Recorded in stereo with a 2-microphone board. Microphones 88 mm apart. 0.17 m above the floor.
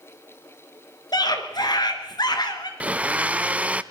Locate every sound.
1.1 s a scream: 50° left (ahead or behind), 3 m
2.8 s a blender: 15° right (ahead or behind), 0.6 m